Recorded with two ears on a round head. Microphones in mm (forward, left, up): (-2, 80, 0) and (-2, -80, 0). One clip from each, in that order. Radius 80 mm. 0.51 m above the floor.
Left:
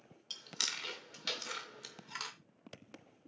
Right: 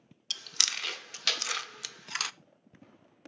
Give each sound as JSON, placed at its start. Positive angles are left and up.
{"t": 0.3, "sound": "chewing", "side_deg": -55, "distance_m": 0.5}